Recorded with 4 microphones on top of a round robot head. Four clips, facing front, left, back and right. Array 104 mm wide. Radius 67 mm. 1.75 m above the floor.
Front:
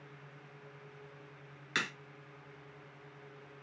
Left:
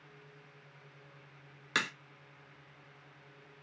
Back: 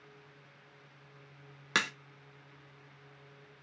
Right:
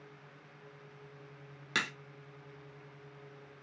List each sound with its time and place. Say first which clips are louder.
1.8 s a crack: left 1 dB, back 4 dB; 175° left, 1.1 m